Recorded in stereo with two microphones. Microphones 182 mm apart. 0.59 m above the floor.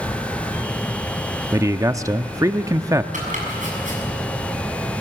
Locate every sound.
1.5 s a man speaking: 20° right (ahead or behind), 0.6 m
3.1 s chopping: 45° right (ahead or behind), 6 m